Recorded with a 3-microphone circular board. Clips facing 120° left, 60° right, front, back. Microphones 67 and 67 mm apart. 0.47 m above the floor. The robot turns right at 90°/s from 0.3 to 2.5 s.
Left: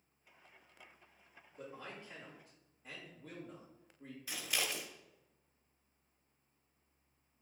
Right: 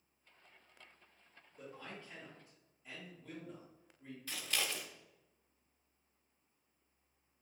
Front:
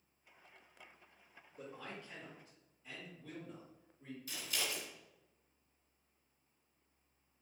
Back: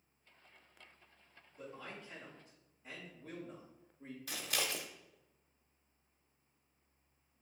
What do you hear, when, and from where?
1.6 s a man speaking: 45° left, 2 m; by 4.2 s 130° left, 2 m
4.3 s scissors: 160° right, 0.7 m